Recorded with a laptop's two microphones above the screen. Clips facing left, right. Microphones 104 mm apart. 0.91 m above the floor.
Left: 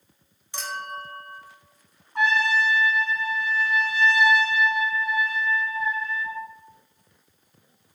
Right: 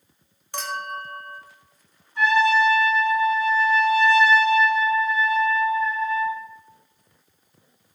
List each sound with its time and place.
0.5 s a clink: 60° right (ahead or behind), 0.7 m
2.1 s a trumpet: 80° left, 2.0 m